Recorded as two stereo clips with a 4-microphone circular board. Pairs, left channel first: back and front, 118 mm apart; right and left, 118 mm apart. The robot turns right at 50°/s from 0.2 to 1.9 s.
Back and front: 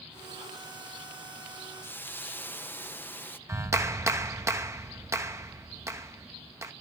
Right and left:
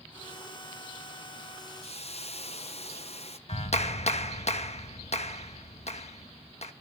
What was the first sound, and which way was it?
A hiss, 110° right.